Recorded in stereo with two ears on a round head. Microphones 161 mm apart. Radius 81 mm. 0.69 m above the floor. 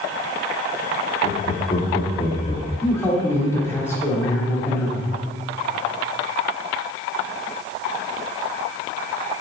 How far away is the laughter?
About 1.2 m.